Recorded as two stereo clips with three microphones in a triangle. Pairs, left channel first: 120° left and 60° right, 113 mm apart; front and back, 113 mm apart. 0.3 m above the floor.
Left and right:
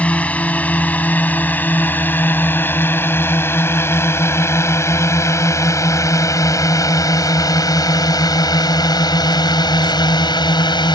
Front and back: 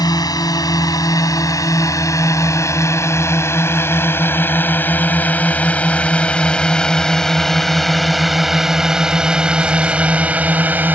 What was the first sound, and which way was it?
A drone, 45° left.